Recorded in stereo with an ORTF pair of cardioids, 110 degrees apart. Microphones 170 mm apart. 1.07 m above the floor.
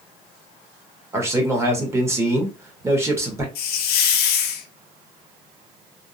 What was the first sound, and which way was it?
A man speaking, 15° right.